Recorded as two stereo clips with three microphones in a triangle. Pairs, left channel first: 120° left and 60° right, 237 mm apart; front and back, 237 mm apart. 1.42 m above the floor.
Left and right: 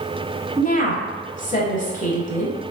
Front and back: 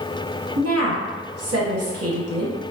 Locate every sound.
0.6 s a woman speaking: straight behind, 1.0 m